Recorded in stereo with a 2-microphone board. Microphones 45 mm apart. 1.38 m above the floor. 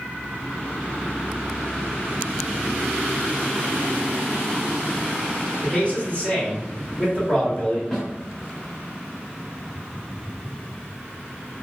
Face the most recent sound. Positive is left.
turn(degrees=15)  # may be behind; listen again after turning